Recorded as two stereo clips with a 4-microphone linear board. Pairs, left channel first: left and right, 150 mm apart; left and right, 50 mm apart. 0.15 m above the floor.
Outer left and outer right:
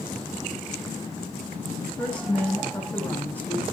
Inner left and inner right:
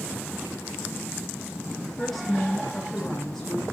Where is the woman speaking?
5° left (ahead or behind), 8.5 m; by 3.6 s 10° left (ahead or behind), 8.5 m.